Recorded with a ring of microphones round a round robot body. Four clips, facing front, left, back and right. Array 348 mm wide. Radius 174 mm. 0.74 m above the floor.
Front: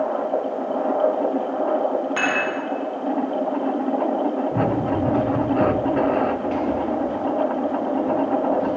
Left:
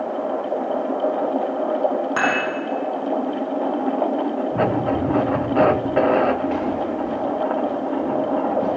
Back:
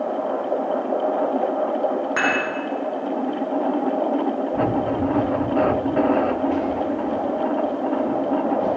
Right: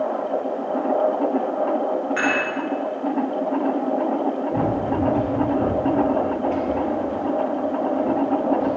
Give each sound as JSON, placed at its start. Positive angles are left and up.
{"t": 2.2, "sound": "dishes clattering", "azimuth_deg": 100, "distance_m": 4.0}
{"t": 4.5, "sound": "running footsteps", "azimuth_deg": 20, "distance_m": 4.0}